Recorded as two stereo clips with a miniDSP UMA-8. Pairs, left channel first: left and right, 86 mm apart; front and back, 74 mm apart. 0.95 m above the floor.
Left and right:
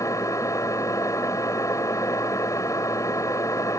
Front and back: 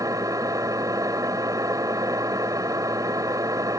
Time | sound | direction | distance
0.0 | an engine running | 140° left | ?